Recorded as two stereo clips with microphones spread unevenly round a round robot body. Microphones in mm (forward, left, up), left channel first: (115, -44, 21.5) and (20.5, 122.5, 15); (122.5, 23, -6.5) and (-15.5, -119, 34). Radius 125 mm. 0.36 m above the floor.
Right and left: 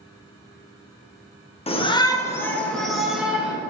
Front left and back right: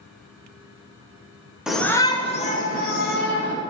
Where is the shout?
30° right, 0.9 m; by 3.5 s 35° left, 1.9 m.